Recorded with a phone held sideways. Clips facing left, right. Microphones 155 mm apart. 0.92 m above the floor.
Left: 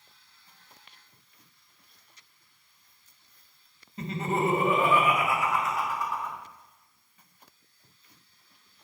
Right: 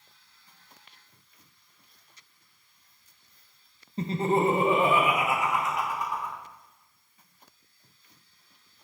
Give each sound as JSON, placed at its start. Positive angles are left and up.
{"t": 4.0, "sound": "laughter", "side_deg": -30, "distance_m": 0.8}